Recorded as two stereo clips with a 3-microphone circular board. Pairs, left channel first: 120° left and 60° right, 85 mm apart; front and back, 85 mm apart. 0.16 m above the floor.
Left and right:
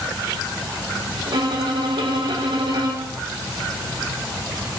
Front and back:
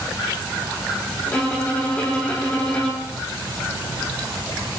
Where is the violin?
75° right, 3.5 m.